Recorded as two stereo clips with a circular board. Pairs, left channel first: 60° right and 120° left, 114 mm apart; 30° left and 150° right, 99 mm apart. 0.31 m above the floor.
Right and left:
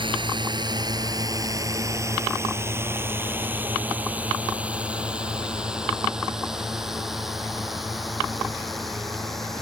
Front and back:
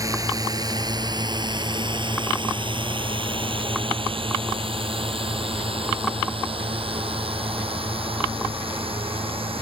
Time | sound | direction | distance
0.0 | a drone | 160° left | ?